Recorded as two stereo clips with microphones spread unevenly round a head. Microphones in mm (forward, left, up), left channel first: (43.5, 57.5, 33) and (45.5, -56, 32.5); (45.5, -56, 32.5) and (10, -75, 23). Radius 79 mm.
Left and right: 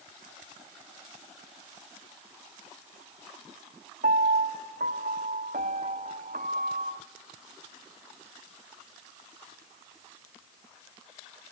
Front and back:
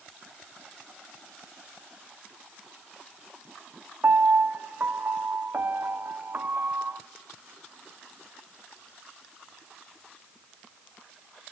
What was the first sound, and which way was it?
A piano, 115° right.